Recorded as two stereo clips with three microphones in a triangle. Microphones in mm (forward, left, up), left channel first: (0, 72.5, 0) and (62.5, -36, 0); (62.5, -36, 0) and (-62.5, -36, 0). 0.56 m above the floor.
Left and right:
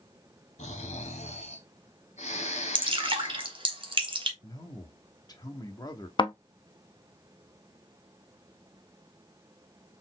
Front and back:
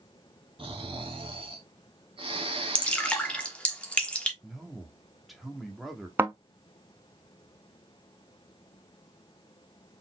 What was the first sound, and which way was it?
Snoring, 140° left.